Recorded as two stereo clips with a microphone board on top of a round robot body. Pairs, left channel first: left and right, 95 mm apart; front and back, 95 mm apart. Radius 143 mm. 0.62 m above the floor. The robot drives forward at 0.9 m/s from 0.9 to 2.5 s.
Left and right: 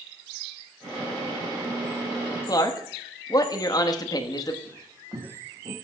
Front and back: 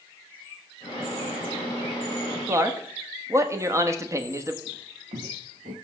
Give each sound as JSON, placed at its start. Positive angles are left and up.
{"t": 2.5, "sound": "a man speaking", "azimuth_deg": 125, "distance_m": 1.3}
{"t": 4.7, "sound": "footsteps", "azimuth_deg": -165, "distance_m": 1.2}